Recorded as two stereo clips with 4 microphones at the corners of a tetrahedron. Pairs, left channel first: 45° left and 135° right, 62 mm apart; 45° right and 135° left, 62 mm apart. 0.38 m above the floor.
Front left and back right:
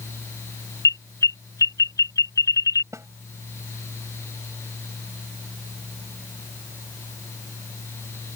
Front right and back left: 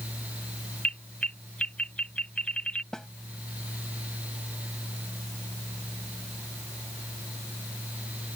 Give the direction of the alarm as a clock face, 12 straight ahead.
11 o'clock.